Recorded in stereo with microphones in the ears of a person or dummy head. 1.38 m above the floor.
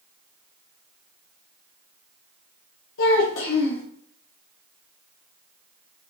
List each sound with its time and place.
3.0 s a child speaking: 80° left, 0.7 m